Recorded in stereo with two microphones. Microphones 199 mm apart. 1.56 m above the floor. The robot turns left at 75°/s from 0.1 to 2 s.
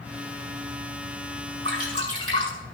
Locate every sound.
1.6 s dripping: 65° right (ahead or behind), 7 m; by 2.5 s 90° right, 7 m